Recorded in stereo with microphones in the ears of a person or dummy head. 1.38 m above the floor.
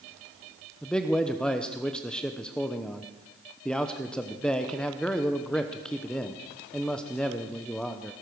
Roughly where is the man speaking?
Centre.